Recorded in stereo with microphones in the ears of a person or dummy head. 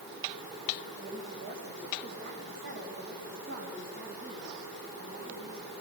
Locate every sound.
1.0 s a woman speaking: 75° right (ahead or behind), 5.5 m; by 5.7 s 65° right (ahead or behind), 8.5 m